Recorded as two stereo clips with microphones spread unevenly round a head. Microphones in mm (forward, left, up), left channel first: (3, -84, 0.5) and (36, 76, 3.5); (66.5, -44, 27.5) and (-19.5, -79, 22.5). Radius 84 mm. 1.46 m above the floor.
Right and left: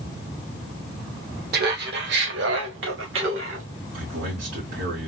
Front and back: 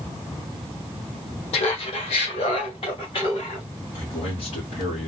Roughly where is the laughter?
Ahead left.